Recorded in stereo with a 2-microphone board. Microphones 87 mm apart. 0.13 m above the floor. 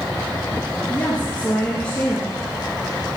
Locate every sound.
0.9 s a woman speaking: 15° left (ahead or behind), 2.5 m